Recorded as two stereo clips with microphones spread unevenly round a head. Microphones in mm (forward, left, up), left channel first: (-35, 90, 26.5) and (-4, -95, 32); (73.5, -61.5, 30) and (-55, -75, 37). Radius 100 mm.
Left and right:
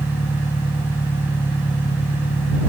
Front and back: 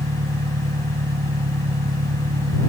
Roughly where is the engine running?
Behind.